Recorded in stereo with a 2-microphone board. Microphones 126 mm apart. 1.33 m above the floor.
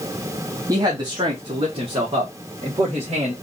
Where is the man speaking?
25° right (ahead or behind), 0.7 m; by 3.3 s 50° right (ahead or behind), 2.5 m.